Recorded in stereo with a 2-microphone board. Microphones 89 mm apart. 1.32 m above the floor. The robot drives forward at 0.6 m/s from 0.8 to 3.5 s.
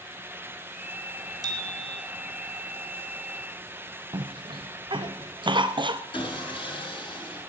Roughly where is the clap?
No clap in this recording.